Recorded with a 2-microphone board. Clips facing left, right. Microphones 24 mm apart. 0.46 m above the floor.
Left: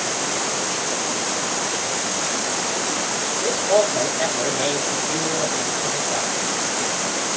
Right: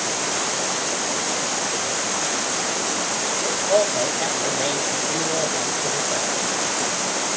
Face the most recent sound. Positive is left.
turn(degrees=-5)  # may be behind; listen again after turning